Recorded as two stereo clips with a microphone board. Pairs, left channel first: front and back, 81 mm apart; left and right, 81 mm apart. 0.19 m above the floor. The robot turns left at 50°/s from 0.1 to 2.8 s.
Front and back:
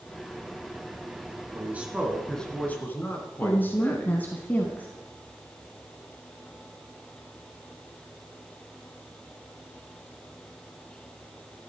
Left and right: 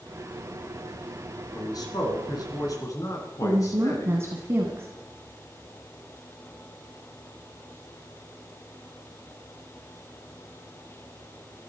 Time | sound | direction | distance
1.5 | a man speaking | 120° left | 2.5 m
3.4 | a woman speaking | 55° right | 1.3 m